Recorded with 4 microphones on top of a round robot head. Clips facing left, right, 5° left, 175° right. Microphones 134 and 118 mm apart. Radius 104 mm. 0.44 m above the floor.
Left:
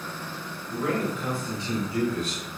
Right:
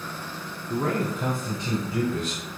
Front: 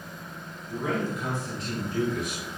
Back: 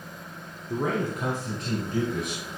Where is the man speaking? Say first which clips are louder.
Right 1 dB, back 2 dB; 135° right, 1.9 m; by 2.5 s 110° right, 3 m.